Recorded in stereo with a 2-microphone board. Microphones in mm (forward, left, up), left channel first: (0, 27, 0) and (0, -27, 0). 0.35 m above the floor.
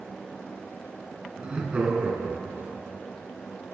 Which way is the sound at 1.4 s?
20° right (ahead or behind).